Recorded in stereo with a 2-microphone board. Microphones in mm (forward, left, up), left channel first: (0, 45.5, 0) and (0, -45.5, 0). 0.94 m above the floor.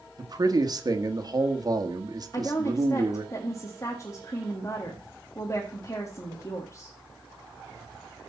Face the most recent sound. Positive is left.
turn(degrees=35)  # may be behind; listen again after turning